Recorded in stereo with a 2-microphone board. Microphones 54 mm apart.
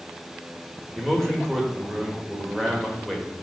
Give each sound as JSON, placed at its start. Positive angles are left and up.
{"t": 0.9, "sound": "a man speaking", "side_deg": 5, "distance_m": 1.4}